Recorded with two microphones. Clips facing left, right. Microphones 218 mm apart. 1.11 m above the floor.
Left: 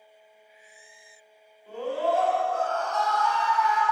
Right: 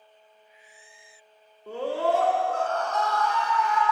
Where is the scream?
75° right (ahead or behind), 1.5 m; by 3.8 s 50° right (ahead or behind), 2.0 m.